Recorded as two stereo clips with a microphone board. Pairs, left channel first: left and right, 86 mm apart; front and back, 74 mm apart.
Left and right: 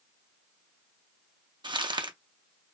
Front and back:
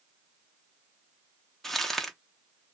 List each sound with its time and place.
1.6 s crumpling: 85° right, 0.5 m